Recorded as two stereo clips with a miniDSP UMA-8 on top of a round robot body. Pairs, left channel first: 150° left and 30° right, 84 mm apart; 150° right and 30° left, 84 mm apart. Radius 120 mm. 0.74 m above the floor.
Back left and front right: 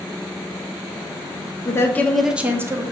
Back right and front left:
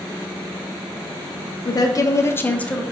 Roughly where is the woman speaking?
Behind.